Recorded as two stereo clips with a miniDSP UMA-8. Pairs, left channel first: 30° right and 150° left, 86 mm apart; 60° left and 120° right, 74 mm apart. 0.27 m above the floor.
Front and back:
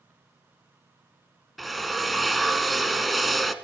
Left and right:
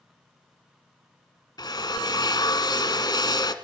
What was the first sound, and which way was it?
A drill, 60° left.